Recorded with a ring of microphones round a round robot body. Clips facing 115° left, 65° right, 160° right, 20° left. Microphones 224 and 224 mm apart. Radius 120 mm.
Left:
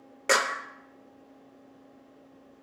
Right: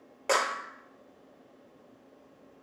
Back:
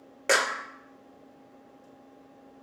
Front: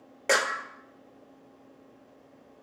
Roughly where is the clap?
Behind left.